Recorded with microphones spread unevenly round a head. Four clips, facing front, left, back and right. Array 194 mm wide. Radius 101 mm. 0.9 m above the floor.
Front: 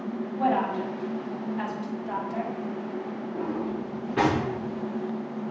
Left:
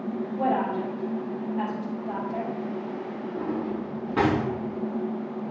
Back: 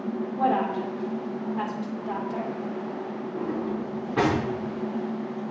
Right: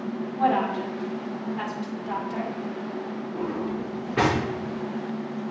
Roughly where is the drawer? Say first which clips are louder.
Even, back 1 dB; behind left.